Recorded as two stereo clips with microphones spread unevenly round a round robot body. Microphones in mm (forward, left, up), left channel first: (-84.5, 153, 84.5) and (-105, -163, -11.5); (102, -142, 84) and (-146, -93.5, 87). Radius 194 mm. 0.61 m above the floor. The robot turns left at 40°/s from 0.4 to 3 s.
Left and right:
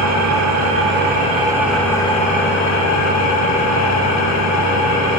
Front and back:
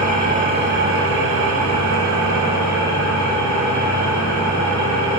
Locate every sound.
0.0 s an engine running: 130° right, 1.3 m; by 5.2 s 125° left, 1.3 m